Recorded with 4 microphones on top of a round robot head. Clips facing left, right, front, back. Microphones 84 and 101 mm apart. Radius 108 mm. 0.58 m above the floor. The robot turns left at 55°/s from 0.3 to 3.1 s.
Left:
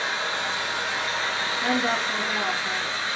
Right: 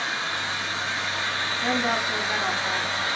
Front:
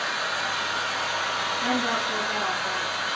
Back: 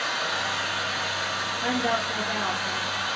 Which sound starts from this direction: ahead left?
A woman speaking, at 1.6 s.